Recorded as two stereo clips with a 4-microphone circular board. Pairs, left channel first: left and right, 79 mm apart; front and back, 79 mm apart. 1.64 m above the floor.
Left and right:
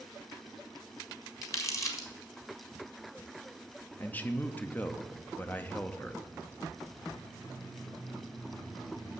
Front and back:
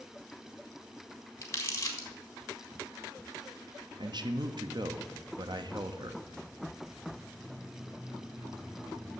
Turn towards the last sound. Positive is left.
turn(degrees=160)